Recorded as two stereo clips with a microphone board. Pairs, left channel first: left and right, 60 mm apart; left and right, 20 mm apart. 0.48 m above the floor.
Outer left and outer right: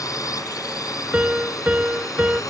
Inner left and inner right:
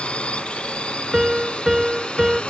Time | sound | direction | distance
0.0 | a drone | 75° left (ahead or behind) | ?
1.1 | a piano | 20° right (ahead or behind) | ?